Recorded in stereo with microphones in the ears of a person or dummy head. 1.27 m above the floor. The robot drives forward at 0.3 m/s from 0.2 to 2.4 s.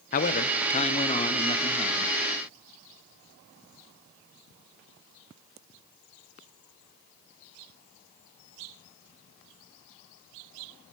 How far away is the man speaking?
About 0.7 m.